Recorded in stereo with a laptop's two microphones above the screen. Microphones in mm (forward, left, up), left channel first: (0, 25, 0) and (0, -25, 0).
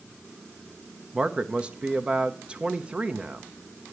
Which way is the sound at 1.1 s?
20° right (ahead or behind).